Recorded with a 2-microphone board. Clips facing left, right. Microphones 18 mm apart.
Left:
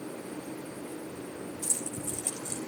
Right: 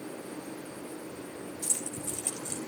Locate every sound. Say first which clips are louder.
1.6 s keys jangling: even; 25° right (ahead or behind), 3 m